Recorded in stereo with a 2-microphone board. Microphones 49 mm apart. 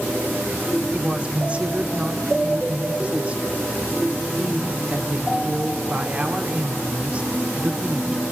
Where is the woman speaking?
25° right (ahead or behind), 1.8 m.